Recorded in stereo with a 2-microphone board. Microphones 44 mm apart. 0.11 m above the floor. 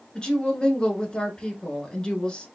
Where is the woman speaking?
20° left (ahead or behind), 1.1 m.